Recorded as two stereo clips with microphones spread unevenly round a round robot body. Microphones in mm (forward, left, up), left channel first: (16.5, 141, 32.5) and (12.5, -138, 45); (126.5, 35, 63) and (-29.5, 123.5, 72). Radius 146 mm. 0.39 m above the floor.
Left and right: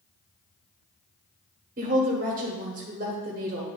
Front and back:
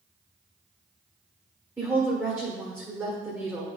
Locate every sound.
1.8 s a woman speaking: 135° right, 1.5 m